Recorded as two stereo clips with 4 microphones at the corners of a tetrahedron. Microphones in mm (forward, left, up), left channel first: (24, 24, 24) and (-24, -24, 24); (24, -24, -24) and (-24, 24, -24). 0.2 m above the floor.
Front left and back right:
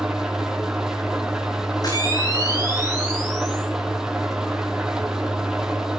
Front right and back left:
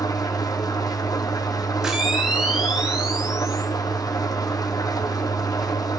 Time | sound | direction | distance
0.0 | an engine running | 55° right | 2.5 m
1.8 | a camera shutter | 55° left | 5.5 m